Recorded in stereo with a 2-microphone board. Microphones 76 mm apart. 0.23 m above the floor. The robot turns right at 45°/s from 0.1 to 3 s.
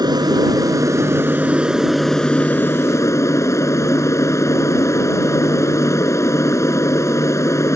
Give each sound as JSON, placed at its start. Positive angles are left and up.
{"t": 0.0, "sound": "an aircraft", "azimuth_deg": -85}